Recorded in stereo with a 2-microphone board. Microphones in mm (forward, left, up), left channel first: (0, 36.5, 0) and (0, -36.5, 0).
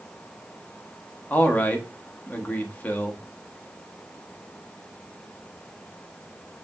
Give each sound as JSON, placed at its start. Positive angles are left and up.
{"t": 1.3, "sound": "a man speaking", "side_deg": 25, "distance_m": 0.7}